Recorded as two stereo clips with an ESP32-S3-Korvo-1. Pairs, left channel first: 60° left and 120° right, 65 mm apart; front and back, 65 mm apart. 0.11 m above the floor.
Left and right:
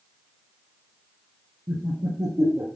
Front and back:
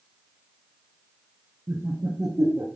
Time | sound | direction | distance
1.7 | laughter | 140° right | 3 m